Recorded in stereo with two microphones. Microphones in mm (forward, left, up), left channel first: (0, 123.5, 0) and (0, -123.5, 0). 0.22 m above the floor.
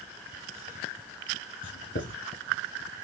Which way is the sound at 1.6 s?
55° left (ahead or behind).